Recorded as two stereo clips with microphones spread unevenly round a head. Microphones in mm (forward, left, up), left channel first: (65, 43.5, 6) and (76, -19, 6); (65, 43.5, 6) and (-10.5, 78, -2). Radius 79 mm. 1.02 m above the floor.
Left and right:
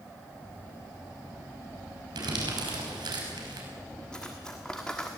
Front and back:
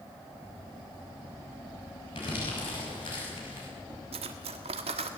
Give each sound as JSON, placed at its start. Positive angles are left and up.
{"t": 2.1, "sound": "crumpling", "azimuth_deg": -85, "distance_m": 5.5}
{"t": 4.1, "sound": "cutlery clinking", "azimuth_deg": -175, "distance_m": 1.2}